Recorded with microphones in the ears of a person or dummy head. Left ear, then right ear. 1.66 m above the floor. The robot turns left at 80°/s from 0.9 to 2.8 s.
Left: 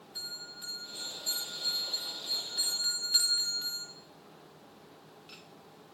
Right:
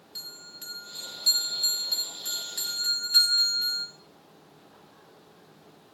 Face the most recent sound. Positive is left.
turn(degrees=175)